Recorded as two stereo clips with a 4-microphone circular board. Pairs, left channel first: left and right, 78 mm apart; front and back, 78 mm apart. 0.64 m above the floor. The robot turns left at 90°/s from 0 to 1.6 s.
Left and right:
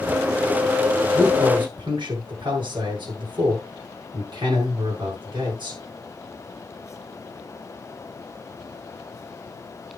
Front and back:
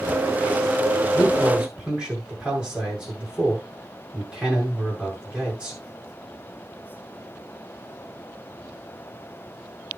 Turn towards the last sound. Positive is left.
turn(degrees=-100)